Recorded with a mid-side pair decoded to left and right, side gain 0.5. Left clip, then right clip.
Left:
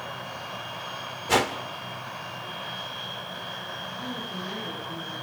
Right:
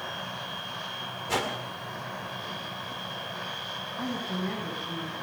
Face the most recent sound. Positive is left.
turn(degrees=-55)